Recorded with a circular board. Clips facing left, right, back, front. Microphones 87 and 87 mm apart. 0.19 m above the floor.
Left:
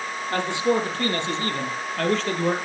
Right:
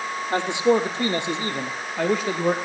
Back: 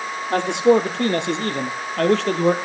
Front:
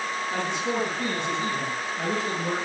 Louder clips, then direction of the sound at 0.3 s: Right 3 dB, back 14 dB; 160° right.